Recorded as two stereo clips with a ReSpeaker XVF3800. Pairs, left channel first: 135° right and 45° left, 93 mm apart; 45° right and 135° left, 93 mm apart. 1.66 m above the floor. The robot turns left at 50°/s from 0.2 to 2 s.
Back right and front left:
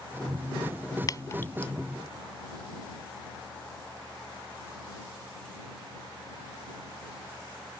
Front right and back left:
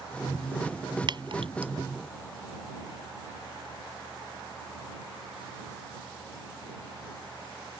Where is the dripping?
175° left; by 1.7 s 140° left.